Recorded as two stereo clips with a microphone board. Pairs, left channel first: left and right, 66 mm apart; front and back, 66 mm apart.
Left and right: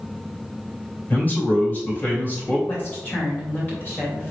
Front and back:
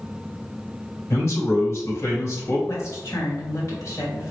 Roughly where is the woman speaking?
Ahead left.